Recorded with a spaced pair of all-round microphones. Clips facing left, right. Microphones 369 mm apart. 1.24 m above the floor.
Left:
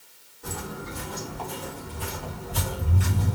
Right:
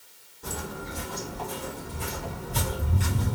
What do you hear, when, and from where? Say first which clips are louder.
0.4 s footsteps: even; 30° right (ahead or behind), 1.9 m; by 3.4 s 25° right (ahead or behind), 1.5 m